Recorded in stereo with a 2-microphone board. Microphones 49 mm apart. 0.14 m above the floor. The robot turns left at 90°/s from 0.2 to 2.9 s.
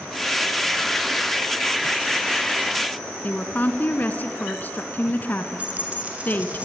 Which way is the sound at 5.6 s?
25° right (ahead or behind).